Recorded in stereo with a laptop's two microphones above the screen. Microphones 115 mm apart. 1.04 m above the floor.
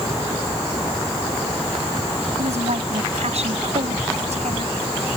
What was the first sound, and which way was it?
A woman speaking, 70° right (ahead or behind).